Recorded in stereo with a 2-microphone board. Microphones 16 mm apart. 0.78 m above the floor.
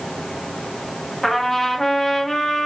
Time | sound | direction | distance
1.2 | a trumpet | 20° left (ahead or behind) | 1.2 m